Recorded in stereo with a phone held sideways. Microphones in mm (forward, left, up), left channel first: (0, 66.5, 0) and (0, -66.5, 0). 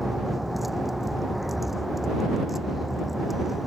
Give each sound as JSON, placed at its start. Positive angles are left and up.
{"t": 0.0, "sound": "a vehicle", "side_deg": 0}